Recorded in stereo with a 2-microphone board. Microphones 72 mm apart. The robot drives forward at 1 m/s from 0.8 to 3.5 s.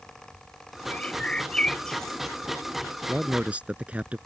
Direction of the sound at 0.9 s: 20° left (ahead or behind).